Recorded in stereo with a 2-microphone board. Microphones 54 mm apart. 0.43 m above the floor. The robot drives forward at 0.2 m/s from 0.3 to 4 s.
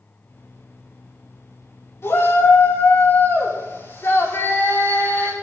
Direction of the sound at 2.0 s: 60° left (ahead or behind).